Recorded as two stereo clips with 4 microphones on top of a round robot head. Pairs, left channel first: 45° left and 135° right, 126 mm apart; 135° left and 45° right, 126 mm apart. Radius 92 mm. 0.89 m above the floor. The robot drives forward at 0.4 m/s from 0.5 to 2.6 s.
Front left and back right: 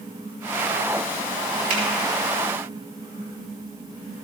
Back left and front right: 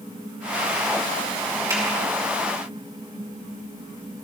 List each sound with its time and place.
1.7 s a finger snap: 115° right, 4 m